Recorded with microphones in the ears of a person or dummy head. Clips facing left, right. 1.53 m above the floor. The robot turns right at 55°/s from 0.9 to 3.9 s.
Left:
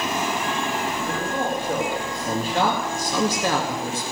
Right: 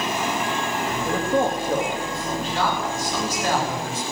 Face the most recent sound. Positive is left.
turn(degrees=115)